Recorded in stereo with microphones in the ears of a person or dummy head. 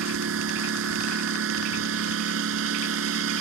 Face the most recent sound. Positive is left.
turn(degrees=-70)  # may be behind; listen again after turning